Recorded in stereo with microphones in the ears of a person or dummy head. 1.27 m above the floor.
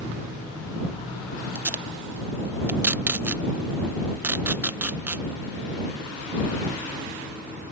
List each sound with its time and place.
1.6 s tape being pulled: 10° right (ahead or behind)